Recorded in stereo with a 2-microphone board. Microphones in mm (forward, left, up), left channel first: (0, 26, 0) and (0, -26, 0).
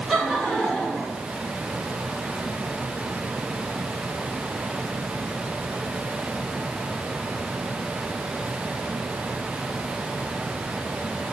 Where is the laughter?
5° right (ahead or behind), 3.5 m; by 1.2 s 15° left (ahead or behind), 4 m.